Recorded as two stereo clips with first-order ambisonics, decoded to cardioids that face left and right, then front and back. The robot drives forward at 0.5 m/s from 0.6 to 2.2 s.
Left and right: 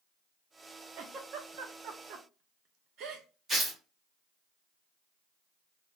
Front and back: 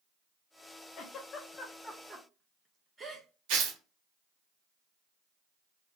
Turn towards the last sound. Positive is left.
turn(degrees=-165)